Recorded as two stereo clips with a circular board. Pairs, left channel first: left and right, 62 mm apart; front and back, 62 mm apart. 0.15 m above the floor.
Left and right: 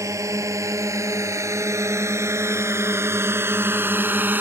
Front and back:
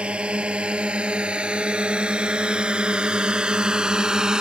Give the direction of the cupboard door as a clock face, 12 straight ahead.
I don't hear a cupboard door.